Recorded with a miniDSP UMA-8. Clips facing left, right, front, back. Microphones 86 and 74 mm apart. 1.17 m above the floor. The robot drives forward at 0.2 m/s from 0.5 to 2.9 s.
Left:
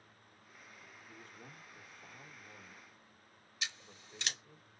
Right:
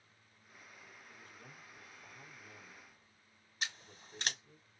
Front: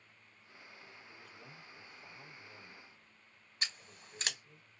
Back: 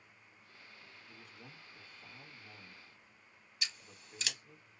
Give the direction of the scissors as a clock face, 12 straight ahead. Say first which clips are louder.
Right 2 dB, front 3 dB; 2 o'clock.